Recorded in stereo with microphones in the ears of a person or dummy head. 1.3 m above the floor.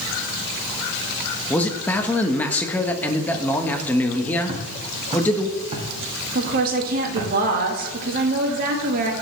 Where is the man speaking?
10° left (ahead or behind), 1.2 m.